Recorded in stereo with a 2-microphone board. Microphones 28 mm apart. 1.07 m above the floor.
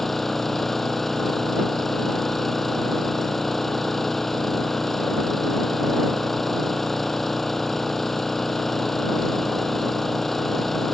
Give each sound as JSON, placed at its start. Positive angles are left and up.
{"t": 0.0, "sound": "an engine running", "side_deg": 10}